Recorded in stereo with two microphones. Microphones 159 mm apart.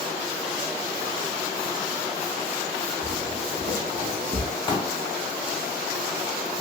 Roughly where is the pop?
Left.